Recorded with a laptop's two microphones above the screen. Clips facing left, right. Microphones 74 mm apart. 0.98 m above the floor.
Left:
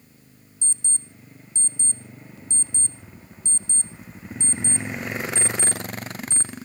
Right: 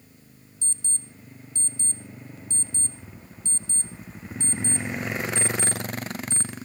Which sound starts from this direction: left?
An alarm clock, at 0.6 s.